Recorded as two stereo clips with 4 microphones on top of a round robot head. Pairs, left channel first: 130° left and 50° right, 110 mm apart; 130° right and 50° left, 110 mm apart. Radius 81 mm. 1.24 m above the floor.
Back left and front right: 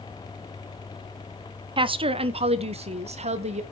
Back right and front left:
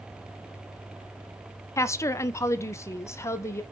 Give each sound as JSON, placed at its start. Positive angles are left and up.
{"t": 1.8, "sound": "a woman speaking", "azimuth_deg": -70, "distance_m": 0.8}